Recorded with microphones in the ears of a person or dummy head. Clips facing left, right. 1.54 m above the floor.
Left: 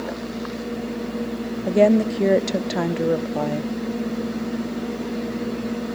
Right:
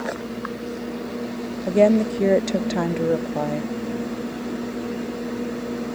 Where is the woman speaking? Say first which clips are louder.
Even; 5° left (ahead or behind), 0.5 m.